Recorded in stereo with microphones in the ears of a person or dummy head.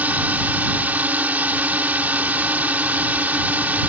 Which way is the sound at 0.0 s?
10° right (ahead or behind).